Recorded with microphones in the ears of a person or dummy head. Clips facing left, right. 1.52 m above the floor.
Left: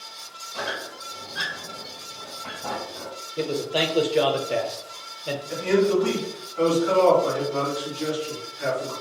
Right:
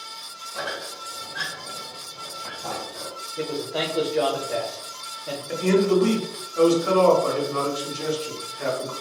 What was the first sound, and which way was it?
A squeak, 10° right (ahead or behind).